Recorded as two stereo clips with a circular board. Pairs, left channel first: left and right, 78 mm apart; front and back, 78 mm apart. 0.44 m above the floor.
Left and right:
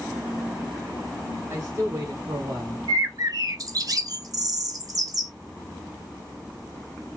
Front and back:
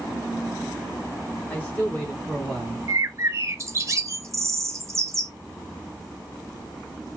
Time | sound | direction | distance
1.5 | a man speaking | 60° right | 1.5 m
2.9 | a bird | 130° right | 0.6 m